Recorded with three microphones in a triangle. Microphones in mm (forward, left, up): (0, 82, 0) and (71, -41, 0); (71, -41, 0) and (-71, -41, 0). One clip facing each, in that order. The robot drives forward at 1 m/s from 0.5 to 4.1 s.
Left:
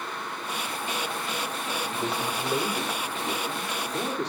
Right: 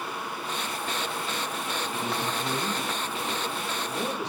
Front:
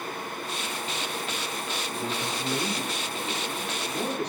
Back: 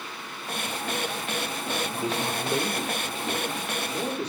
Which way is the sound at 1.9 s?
100° left.